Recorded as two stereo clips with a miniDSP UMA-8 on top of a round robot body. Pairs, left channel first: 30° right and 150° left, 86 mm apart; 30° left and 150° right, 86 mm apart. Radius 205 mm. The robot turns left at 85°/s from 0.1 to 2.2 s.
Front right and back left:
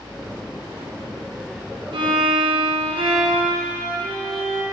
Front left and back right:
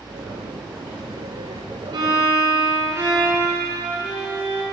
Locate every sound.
1.9 s a violin: 175° left, 1.8 m; by 4.6 s 150° left, 1.8 m